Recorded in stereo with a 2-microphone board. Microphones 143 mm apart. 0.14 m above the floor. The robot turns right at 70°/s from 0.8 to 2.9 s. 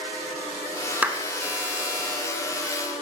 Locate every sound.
1.0 s a clap: 10° right (ahead or behind), 0.9 m; by 1.2 s 15° right (ahead or behind), 0.9 m